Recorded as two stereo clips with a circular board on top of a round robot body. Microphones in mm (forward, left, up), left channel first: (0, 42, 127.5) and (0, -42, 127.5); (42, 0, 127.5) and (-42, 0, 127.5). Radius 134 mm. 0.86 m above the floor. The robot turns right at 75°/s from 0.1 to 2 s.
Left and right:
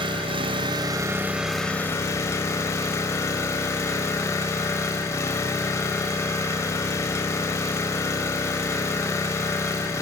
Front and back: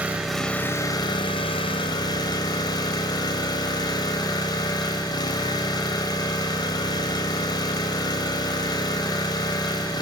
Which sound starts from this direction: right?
An engine running, at 0.0 s.